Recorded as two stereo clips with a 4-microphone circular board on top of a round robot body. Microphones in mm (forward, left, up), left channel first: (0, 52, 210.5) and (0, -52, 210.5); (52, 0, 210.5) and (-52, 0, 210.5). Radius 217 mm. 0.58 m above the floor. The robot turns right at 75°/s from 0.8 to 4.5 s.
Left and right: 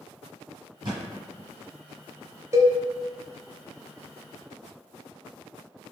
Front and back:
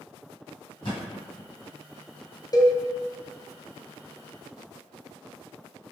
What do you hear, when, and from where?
0.8 s a thud: 40° right, 1.5 m; by 1.5 s 10° left, 1.5 m
2.5 s a cowbell: 40° right, 1.0 m; by 2.8 s 20° right, 1.0 m